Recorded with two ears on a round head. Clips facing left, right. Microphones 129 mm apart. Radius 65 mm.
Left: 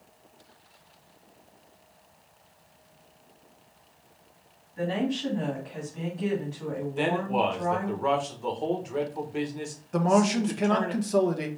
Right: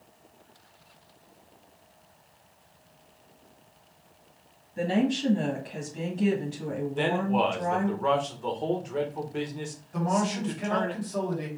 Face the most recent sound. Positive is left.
turn(degrees=70)  # may be behind; listen again after turning